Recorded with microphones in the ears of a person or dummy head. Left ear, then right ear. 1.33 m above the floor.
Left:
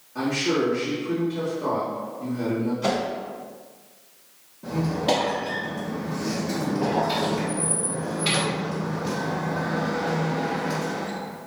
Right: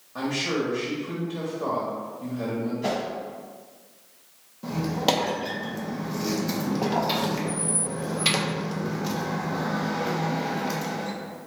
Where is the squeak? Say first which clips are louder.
Left 1 dB; 40° right (ahead or behind), 0.8 m.